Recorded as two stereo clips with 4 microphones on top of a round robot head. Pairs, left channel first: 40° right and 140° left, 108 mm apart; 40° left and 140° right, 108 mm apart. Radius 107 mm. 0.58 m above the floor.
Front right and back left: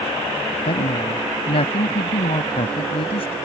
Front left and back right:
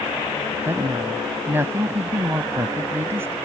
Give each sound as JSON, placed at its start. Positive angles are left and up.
{"t": 0.7, "sound": "a woman speaking", "azimuth_deg": -70}